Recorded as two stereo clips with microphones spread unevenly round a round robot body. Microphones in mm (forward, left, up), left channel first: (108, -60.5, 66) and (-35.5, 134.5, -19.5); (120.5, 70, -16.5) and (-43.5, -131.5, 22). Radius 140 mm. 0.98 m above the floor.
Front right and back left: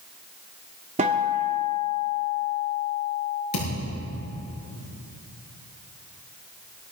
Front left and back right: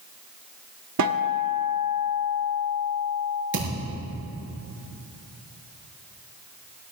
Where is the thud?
85° right, 7 m.